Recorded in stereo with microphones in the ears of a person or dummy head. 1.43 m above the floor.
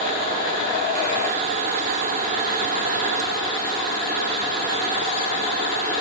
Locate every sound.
Only background noise.